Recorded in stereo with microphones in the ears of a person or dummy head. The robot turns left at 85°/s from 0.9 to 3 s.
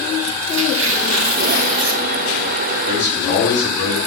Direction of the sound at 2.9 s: 40° left (ahead or behind).